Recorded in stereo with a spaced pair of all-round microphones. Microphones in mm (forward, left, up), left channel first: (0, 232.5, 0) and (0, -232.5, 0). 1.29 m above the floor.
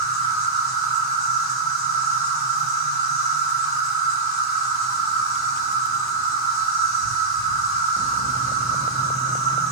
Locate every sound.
0.0 s an insect: 25° right (ahead or behind), 2.5 m